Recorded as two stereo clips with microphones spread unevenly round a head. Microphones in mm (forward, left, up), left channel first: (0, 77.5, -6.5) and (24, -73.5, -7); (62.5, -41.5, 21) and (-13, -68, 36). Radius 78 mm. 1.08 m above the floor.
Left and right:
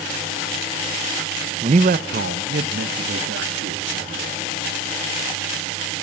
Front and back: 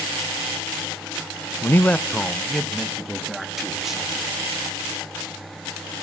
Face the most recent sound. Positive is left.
turn(degrees=-75)